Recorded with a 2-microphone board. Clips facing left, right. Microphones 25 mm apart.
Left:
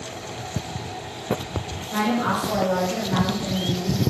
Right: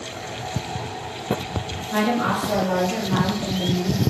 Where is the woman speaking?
10° right (ahead or behind), 2.5 m; by 4.0 s 20° right (ahead or behind), 4 m.